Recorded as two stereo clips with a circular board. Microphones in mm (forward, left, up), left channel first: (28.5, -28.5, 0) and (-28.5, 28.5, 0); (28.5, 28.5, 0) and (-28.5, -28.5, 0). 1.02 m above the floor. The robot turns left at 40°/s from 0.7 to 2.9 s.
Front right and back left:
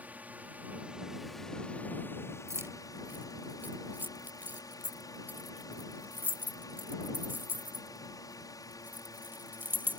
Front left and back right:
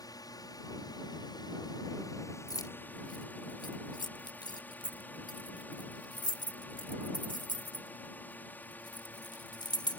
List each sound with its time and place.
0.0 s a drone: 70° left; by 10.0 s 20° right
2.5 s keys jangling: 85° left; by 10.0 s 70° left